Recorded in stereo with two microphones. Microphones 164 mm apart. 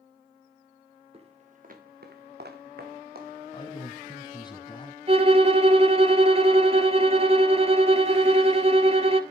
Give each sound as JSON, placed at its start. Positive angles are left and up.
{"t": 1.1, "sound": "footsteps", "side_deg": -35, "distance_m": 2.5}
{"t": 3.5, "sound": "a man speaking", "side_deg": 30, "distance_m": 1.8}
{"t": 5.1, "sound": "a violin", "side_deg": -40, "distance_m": 0.8}